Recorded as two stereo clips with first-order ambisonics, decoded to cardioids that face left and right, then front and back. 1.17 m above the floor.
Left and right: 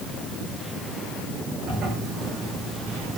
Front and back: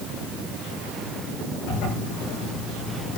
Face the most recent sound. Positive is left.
turn(degrees=-30)